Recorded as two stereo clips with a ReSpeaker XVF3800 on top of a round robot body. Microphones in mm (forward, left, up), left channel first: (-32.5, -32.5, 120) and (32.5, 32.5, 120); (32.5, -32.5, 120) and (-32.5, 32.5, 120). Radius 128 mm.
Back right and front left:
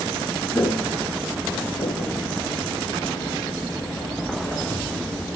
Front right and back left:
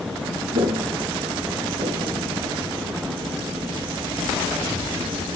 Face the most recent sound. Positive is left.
turn(degrees=180)